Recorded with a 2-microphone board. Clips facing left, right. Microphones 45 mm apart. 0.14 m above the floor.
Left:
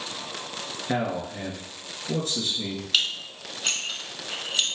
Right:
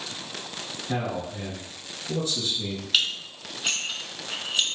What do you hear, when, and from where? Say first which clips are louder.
0.9 s a man speaking: left 2 dB; 50° left (ahead or behind), 1.9 m
2.9 s dishes clattering: right 1 dB; 5° right (ahead or behind), 0.9 m